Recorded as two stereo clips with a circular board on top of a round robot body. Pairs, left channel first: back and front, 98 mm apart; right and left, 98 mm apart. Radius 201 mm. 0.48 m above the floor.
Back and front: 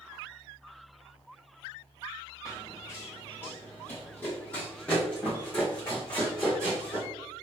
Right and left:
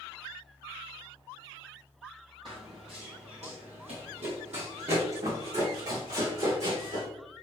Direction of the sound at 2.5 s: 130° left.